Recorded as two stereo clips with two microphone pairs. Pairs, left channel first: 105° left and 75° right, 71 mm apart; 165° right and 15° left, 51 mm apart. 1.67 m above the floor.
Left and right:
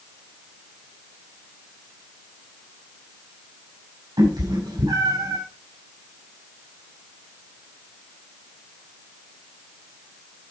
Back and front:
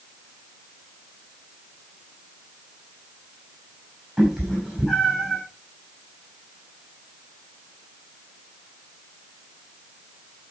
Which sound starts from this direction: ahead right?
A cat meowing, at 4.2 s.